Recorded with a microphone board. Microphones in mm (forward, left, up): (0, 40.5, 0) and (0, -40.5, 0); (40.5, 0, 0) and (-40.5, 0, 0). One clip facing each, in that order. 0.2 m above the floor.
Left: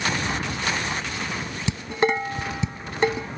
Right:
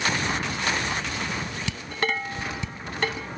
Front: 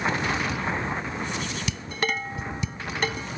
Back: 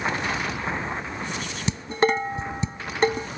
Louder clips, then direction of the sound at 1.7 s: Left 7 dB, back 10 dB; 145° left.